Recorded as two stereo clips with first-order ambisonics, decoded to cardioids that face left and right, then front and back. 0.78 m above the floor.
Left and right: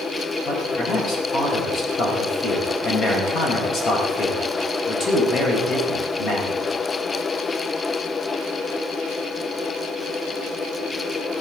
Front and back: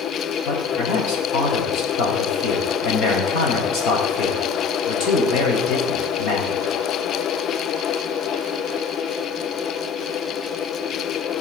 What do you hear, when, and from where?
0.5 s a man speaking: 35° left, 4.5 m